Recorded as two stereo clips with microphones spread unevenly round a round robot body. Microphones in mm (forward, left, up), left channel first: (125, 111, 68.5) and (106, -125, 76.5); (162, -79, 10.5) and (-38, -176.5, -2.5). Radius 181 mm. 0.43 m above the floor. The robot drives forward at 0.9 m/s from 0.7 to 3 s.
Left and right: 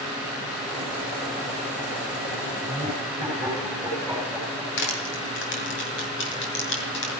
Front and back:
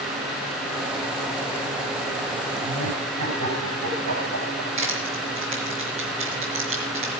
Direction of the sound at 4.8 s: 135° left.